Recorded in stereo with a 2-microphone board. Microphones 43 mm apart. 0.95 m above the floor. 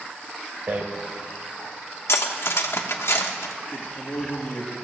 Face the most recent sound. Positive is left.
turn(degrees=65)  # may be behind; listen again after turning